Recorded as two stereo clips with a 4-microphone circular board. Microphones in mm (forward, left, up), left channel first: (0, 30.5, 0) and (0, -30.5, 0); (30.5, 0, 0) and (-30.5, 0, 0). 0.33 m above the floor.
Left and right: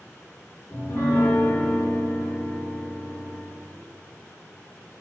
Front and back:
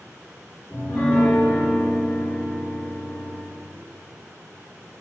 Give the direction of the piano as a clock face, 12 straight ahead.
10 o'clock.